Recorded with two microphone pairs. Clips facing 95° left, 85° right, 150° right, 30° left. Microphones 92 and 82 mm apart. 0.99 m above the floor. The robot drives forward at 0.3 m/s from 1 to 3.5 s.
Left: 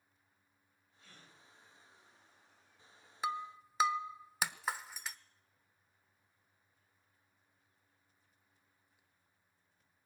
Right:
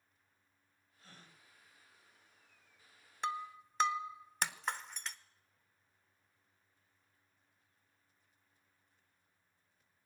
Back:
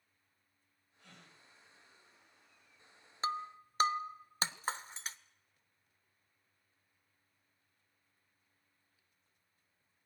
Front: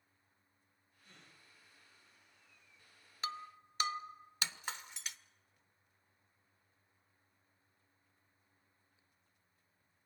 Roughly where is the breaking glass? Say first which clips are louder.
Left 1 dB, back 7 dB; behind.